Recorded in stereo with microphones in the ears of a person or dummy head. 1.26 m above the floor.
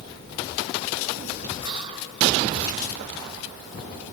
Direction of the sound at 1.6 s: 35° right (ahead or behind).